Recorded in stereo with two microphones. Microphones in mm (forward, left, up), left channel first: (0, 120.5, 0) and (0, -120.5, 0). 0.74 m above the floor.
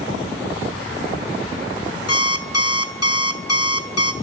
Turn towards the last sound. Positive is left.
turn(degrees=80)